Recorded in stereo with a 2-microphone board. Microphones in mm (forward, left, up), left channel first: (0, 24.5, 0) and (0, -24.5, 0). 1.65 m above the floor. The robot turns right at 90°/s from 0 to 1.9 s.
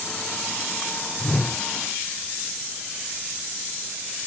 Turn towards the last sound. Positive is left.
turn(degrees=-125)